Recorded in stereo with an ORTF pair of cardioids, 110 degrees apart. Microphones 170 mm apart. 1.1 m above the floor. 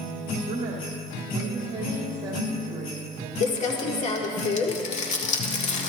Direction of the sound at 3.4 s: 45° left.